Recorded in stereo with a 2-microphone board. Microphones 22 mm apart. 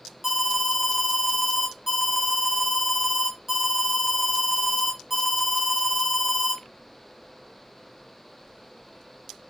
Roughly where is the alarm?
Centre.